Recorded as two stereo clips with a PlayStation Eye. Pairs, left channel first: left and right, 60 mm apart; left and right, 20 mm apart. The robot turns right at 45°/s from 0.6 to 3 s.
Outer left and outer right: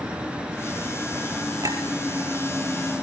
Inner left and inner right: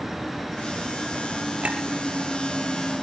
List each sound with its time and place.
1.6 s a clink: 75° right (ahead or behind), 4.5 m; by 1.8 s 80° right, 4.5 m